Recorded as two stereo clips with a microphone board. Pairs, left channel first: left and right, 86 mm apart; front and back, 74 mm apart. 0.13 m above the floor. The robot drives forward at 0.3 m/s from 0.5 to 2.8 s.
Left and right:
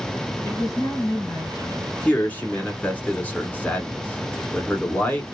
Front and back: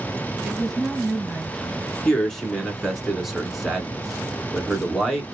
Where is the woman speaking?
85° left, 1.8 m; by 1.9 s 105° left, 1.8 m.